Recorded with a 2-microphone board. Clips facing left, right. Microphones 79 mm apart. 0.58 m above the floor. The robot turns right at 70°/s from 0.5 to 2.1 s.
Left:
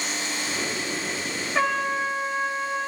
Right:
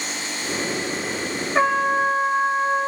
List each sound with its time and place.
1.6 s a trumpet: 150° right, 1.0 m; by 2.9 s 110° right, 1.0 m